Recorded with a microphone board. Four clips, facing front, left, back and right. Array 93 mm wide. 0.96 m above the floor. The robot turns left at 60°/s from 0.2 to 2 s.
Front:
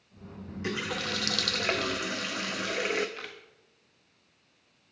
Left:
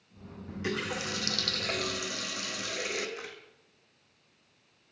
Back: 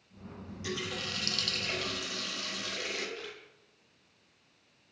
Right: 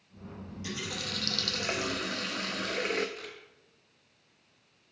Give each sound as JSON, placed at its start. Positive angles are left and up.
{"t": 0.5, "sound": "a running tap", "azimuth_deg": 55, "distance_m": 0.8}
{"t": 3.2, "sound": "a camera shutter", "azimuth_deg": 20, "distance_m": 1.3}